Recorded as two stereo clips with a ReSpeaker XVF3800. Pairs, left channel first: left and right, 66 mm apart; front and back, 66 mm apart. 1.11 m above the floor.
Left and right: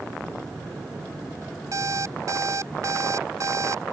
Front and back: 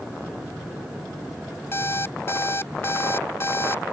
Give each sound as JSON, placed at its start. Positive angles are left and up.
{"t": 1.7, "sound": "an alarm clock", "azimuth_deg": -55}